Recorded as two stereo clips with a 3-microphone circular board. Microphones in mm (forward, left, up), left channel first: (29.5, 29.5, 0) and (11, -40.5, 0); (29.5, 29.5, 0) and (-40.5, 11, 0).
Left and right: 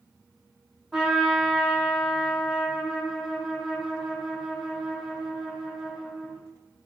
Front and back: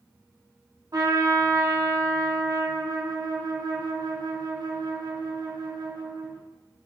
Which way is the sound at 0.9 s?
170° left.